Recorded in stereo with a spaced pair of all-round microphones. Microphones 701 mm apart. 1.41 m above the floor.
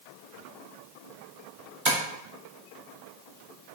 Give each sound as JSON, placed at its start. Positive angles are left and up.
{"t": 1.9, "sound": "tapping", "side_deg": -40, "distance_m": 1.4}